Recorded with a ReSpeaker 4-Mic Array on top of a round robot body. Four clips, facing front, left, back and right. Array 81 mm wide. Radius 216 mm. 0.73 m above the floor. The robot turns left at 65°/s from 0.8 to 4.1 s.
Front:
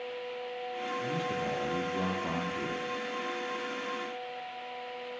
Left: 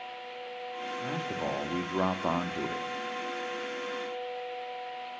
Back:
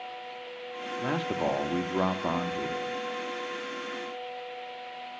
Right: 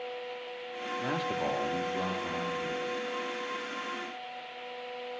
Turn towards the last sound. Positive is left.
turn(degrees=5)